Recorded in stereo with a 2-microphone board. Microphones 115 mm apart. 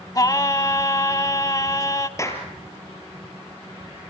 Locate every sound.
0.1 s singing: 35° left (ahead or behind), 0.8 m
2.2 s a clap: 25° left (ahead or behind), 3.5 m